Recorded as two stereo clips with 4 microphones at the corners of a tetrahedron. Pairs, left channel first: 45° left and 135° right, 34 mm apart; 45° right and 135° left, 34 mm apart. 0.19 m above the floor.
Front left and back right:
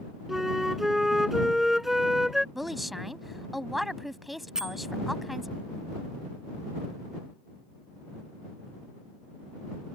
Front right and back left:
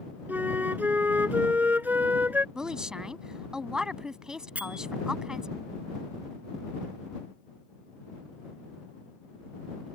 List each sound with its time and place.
0.3 s a flute: 140° left
2.5 s a woman speaking: 145° left
4.5 s a bell: 155° left